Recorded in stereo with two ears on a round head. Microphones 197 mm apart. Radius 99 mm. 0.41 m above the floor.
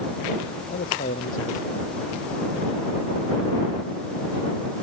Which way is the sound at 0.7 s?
40° left (ahead or behind).